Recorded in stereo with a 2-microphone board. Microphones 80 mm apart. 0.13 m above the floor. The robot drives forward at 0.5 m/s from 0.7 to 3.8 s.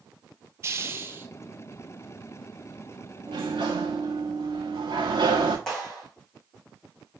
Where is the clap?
10° left (ahead or behind), 6 m.